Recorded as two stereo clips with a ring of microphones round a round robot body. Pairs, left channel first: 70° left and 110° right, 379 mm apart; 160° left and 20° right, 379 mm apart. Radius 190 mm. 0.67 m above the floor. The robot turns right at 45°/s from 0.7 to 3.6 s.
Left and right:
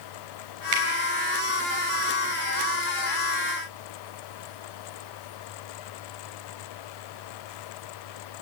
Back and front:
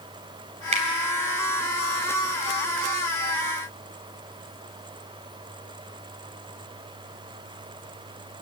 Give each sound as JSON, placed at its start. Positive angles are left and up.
{"t": 0.7, "sound": "a finger snap", "azimuth_deg": -95, "distance_m": 3.5}